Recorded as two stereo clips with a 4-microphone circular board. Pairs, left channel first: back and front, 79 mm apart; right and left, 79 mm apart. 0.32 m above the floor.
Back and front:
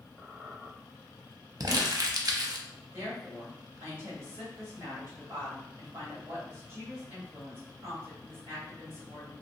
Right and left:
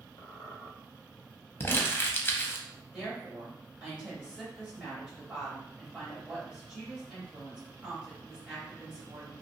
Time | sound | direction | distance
0.2 | a squeak | 80° right | 1.1 m
1.6 | crumpling | 30° right | 0.5 m
2.9 | a woman speaking | 20° left | 1.8 m